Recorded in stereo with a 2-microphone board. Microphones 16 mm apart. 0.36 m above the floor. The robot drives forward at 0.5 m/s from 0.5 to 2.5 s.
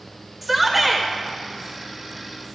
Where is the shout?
10° right (ahead or behind), 1.0 m.